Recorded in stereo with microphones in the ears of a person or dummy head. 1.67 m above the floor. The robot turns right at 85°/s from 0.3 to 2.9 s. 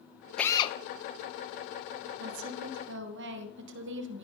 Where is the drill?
5° left, 0.9 m; by 0.8 s 40° left, 0.9 m.